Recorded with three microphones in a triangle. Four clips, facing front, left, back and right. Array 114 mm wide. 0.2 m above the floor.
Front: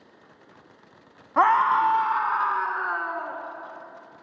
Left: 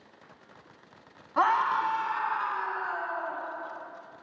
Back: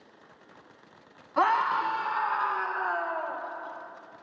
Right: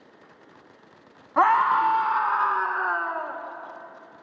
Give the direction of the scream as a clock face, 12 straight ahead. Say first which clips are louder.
Right 6 dB, front 6 dB; 1 o'clock.